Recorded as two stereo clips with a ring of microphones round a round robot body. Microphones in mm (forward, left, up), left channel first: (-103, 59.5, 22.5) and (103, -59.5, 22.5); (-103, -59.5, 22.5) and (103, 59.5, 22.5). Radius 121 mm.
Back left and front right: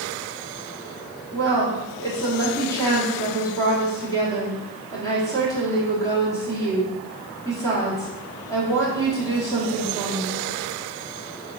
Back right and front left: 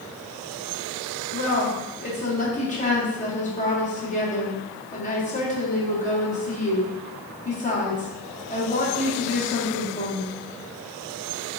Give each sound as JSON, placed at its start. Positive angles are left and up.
{"t": 1.3, "sound": "a woman speaking", "azimuth_deg": -145, "distance_m": 1.3}